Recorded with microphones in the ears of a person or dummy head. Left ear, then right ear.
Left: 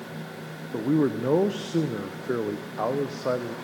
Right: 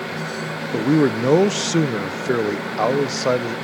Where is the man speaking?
65° right (ahead or behind), 0.8 m.